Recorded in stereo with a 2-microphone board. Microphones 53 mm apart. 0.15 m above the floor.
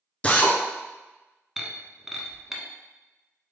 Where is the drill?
25° left (ahead or behind), 0.7 m.